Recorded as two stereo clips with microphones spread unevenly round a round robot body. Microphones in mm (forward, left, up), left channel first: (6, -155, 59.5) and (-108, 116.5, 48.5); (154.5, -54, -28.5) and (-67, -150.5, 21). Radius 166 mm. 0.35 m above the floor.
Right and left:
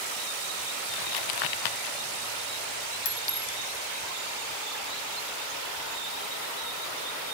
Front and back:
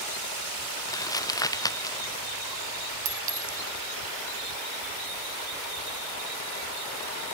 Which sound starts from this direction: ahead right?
Crumpling, at 0.9 s.